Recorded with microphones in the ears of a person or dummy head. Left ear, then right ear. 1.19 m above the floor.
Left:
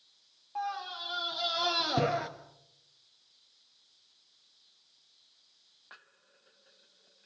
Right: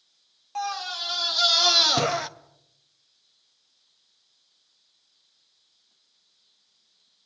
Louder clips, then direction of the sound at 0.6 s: Right 6 dB; 75° right (ahead or behind).